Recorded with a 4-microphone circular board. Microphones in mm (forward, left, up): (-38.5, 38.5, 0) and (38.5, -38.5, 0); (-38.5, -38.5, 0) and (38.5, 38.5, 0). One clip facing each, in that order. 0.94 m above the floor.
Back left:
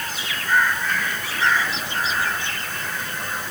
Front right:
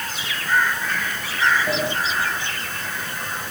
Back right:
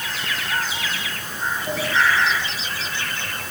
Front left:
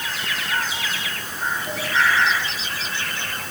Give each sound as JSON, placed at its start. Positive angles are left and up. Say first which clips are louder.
{"t": 1.7, "sound": "a sliding door", "louder": "front right 6 dB, back right 3 dB", "azimuth_deg": -60}